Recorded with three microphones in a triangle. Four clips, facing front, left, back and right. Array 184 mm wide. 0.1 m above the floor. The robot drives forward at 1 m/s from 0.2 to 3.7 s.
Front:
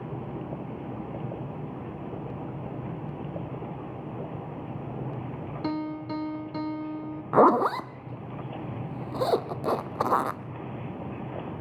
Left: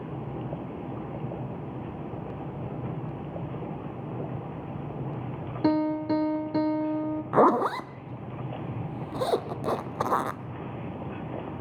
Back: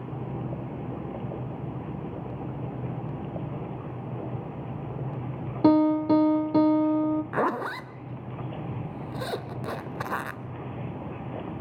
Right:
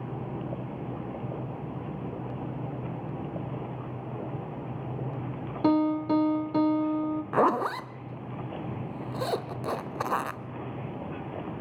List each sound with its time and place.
5.6 s a piano: 175° left, 1.8 m
7.3 s a zipper: 20° left, 0.8 m